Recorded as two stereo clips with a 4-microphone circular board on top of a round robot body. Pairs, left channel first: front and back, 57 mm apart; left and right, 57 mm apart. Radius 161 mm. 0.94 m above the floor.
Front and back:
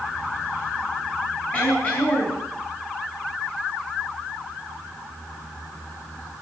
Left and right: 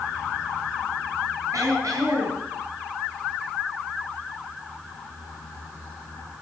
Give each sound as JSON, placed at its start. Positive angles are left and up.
{"t": 1.5, "sound": "throat clearing", "azimuth_deg": -60, "distance_m": 9.5}